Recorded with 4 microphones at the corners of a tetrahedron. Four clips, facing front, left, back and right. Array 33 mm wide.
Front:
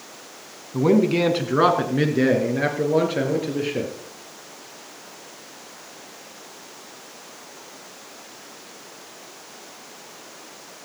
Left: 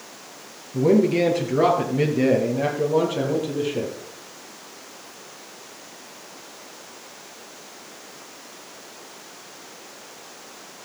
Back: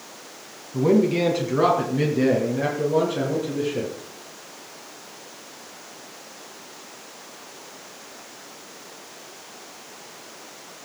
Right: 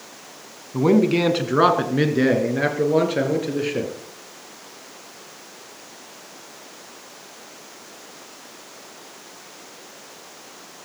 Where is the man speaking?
60° right, 2.5 m.